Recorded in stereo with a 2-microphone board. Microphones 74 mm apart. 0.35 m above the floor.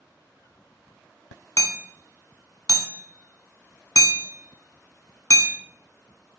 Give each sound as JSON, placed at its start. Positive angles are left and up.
{"t": 1.6, "sound": "hammering", "side_deg": 55, "distance_m": 0.6}